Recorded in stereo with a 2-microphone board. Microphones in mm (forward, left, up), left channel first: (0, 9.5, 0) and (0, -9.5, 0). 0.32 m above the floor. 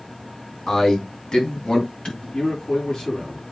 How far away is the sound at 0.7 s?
About 3.5 m.